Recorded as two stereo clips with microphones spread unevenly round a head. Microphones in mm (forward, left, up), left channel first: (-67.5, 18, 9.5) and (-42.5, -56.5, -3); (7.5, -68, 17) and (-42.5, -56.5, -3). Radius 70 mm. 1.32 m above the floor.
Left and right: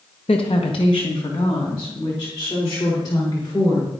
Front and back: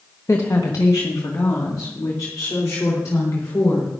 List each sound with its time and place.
0.3 s a woman speaking: 60° left, 1.2 m; by 3.9 s 45° left, 5 m